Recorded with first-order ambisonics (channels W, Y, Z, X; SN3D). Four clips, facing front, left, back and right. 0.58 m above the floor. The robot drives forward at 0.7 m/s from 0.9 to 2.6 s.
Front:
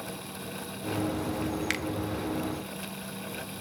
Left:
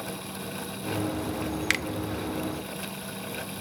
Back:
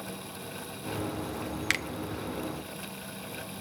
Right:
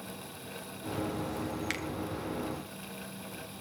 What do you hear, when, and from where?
1.7 s a finger snap: 110° left, 0.6 m; by 1.9 s 125° left, 0.7 m